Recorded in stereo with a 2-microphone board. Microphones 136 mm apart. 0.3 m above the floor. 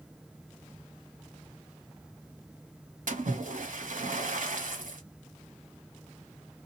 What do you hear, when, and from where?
3.1 s a splash: 70° right (ahead or behind), 0.8 m